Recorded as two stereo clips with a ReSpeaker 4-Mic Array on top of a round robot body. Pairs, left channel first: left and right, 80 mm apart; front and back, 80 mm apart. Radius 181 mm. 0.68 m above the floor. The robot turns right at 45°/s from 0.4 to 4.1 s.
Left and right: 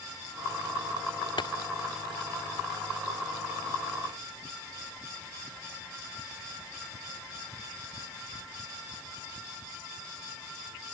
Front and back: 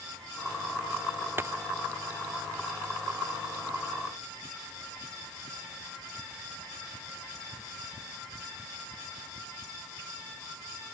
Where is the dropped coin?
115° left; by 1.6 s 125° left.